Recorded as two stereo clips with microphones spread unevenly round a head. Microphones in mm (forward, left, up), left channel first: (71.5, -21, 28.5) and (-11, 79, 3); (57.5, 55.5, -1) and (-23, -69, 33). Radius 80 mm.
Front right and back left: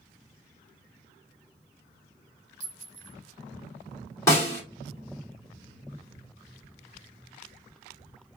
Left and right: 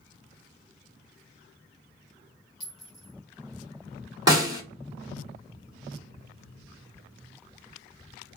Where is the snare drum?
90° right, 1.4 m.